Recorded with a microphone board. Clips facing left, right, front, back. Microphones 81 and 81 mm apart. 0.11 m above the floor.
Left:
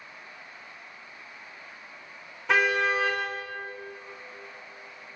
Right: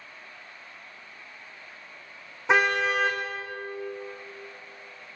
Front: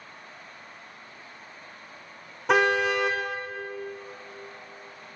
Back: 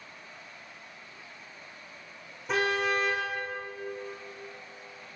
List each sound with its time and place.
2.5 s a car horn: 20° right, 4 m